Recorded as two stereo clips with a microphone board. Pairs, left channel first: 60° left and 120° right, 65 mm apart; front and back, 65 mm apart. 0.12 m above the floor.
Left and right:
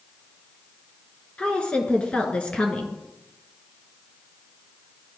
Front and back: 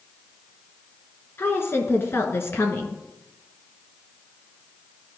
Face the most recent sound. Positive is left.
turn(degrees=0)